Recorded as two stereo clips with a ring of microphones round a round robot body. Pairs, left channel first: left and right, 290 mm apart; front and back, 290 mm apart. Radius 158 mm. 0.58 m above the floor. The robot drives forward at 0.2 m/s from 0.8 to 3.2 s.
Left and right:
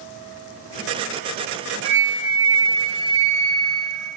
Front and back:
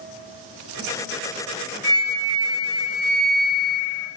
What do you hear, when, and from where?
1.8 s a flute: 165° right, 3 m; by 4.1 s 170° right, 3.5 m